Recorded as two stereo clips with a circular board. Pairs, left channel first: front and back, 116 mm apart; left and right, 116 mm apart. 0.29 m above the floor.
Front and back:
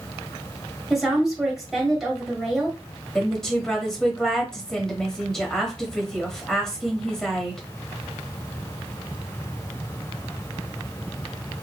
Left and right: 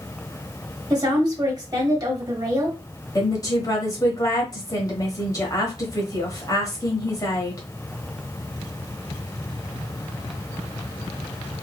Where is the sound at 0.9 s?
95° right, 1.3 m.